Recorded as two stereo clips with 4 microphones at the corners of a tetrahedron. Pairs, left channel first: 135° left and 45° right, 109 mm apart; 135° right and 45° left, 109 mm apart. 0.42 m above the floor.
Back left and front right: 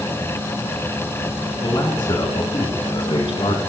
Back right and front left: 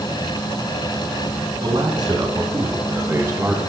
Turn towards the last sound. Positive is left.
turn(degrees=110)